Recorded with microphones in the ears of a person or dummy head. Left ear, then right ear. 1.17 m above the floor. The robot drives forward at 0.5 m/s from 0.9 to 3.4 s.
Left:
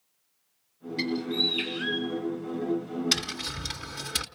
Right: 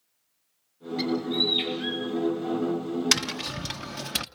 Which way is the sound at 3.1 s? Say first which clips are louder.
Right 3 dB; 55° right (ahead or behind).